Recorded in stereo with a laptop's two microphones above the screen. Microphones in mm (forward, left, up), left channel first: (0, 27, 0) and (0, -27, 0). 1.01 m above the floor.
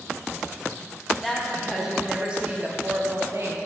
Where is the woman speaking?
5° left (ahead or behind), 1.5 m; by 3.6 s 50° right (ahead or behind), 1.1 m.